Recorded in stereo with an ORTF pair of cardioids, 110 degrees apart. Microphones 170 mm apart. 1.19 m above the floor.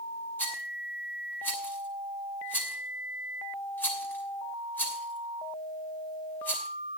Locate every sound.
0.4 s a rattle: 10° left, 6 m